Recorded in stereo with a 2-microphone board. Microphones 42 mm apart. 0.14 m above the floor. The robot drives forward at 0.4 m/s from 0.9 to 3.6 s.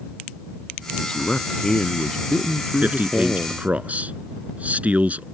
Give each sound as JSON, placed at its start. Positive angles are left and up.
{"t": 1.0, "sound": "a man speaking", "side_deg": 20}
{"t": 2.8, "sound": "a man speaking", "side_deg": -40}